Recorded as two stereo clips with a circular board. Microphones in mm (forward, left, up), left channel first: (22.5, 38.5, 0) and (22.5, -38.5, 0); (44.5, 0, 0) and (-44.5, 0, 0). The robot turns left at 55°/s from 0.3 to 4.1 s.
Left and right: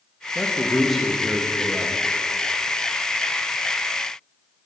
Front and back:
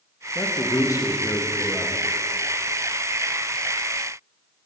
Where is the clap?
No clap in this recording.